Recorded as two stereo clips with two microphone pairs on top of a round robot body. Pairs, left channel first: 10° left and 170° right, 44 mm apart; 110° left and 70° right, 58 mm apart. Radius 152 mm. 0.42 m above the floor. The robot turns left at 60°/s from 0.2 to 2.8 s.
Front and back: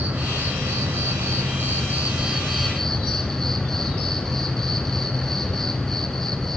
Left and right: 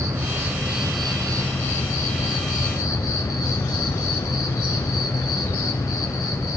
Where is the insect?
115° right, 1.4 m; by 6.6 s 90° left, 1.4 m.